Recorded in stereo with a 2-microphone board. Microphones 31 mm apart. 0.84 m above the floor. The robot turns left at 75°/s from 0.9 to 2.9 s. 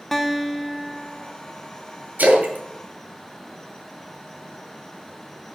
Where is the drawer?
No drawer in this recording.